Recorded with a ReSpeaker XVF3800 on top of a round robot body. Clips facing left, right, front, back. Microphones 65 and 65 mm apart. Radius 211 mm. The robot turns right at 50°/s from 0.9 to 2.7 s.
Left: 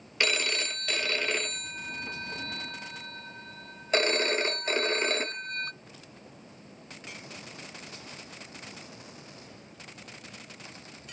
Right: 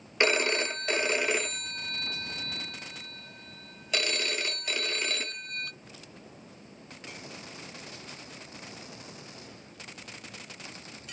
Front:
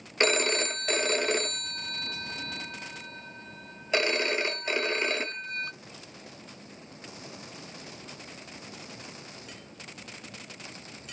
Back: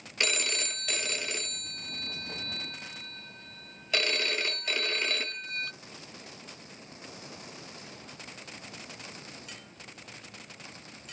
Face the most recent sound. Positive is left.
turn(degrees=55)